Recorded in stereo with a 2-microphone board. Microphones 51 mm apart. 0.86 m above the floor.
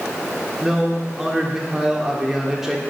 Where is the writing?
I don't hear writing.